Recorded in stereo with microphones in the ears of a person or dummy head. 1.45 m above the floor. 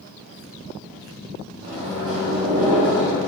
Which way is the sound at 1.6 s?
75° right (ahead or behind).